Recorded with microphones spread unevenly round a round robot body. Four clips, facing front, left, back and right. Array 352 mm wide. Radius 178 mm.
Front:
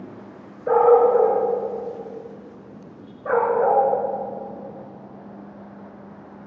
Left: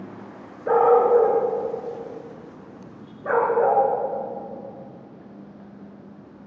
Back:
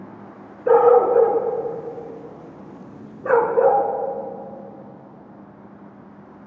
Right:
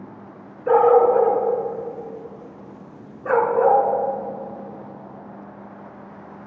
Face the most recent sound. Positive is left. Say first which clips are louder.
# right 2 dB, back 1 dB
turn(degrees=180)